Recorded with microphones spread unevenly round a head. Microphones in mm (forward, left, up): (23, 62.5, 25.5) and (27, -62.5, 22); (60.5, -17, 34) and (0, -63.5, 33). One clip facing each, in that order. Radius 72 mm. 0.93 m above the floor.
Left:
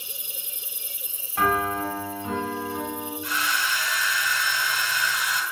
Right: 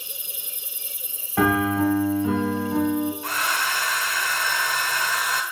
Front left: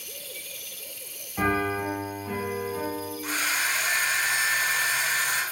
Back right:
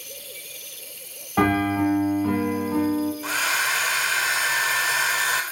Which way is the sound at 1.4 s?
120° right.